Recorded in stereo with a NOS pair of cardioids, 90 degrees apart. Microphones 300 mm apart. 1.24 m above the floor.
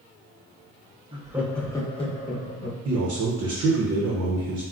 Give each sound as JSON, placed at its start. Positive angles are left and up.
{"t": 1.1, "sound": "laughter", "azimuth_deg": -20, "distance_m": 0.7}
{"t": 2.9, "sound": "a man speaking", "azimuth_deg": -60, "distance_m": 0.7}